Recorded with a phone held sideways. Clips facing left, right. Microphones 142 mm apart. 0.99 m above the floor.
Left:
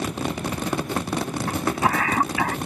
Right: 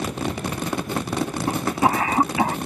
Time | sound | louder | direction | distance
1.5 | a cough | right 3 dB | 25° right (ahead or behind) | ?